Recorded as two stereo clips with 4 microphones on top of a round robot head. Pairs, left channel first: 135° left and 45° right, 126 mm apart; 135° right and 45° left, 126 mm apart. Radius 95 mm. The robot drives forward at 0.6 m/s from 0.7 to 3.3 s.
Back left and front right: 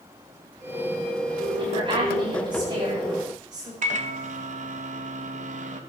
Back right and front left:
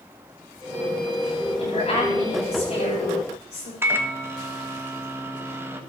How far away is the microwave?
About 1.6 m.